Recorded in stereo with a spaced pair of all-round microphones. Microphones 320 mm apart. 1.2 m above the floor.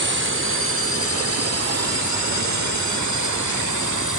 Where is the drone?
35° right (ahead or behind); by 4.2 s 75° right (ahead or behind).